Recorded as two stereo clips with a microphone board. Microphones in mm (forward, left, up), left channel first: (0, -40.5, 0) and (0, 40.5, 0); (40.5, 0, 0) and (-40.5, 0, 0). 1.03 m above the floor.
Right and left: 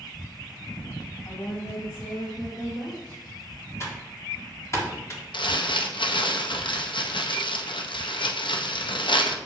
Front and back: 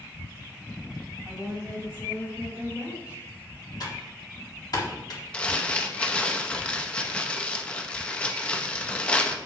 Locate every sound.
1.2 s a woman speaking: 125° right, 3 m; by 3.2 s 110° right, 4 m
3.8 s typing on a keyboard: 35° right, 1.5 m
5.3 s crumpling: 75° right, 0.7 m